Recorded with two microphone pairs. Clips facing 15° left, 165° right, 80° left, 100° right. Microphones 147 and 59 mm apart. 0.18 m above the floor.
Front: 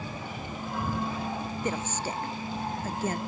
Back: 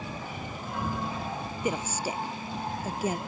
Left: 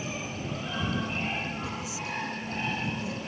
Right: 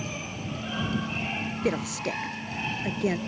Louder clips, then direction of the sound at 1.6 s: Back 3 dB, right 7 dB; 90° right.